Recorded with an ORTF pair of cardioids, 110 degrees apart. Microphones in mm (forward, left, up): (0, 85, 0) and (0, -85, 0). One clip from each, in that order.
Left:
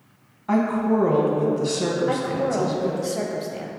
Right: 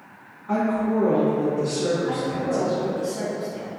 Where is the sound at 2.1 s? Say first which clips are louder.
Left 2 dB; 40° left, 0.9 m.